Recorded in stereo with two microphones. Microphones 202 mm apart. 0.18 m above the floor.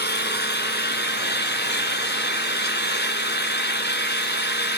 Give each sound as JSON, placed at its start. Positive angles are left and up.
{"t": 0.0, "sound": "an engine running", "side_deg": 60, "distance_m": 2.5}